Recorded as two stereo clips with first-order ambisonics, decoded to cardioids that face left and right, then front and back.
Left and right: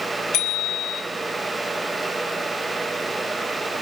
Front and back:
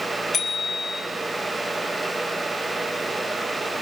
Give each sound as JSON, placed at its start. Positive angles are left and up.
{"t": 0.3, "sound": "a bicycle bell", "azimuth_deg": 70, "distance_m": 7.5}